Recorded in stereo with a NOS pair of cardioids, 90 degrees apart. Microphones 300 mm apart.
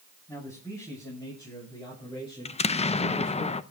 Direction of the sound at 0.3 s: 10° left.